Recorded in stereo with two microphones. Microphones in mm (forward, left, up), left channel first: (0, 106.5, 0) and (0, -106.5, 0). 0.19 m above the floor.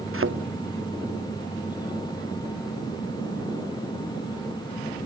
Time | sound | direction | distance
0.1 | a thud | 70° right (ahead or behind) | ?